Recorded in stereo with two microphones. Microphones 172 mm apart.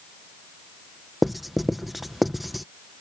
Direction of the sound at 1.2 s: Centre (ahead or behind).